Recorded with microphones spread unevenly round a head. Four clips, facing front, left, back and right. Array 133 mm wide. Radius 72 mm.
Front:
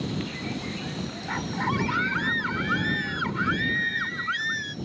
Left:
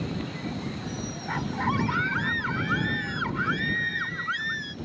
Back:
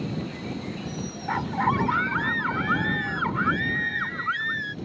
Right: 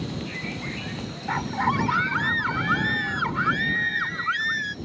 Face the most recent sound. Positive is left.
turn(degrees=-145)